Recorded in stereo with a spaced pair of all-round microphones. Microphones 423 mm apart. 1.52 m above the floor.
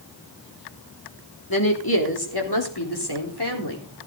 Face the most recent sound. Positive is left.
turn(degrees=70)  # may be behind; listen again after turning